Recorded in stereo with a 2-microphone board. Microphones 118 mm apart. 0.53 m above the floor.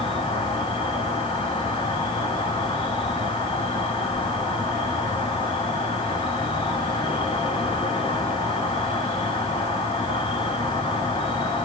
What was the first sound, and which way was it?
An insect, 45° left (ahead or behind).